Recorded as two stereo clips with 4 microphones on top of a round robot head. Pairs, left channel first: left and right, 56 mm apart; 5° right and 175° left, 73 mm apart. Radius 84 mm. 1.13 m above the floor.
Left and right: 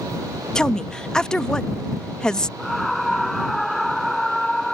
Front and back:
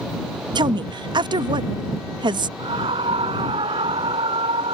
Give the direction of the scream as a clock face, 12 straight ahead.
6 o'clock.